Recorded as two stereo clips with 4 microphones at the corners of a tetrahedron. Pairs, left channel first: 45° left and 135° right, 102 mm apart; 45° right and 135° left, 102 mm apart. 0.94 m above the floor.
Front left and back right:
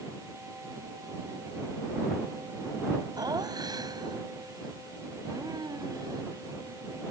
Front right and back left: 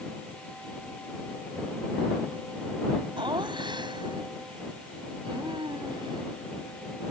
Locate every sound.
3.2 s laughter: 175° left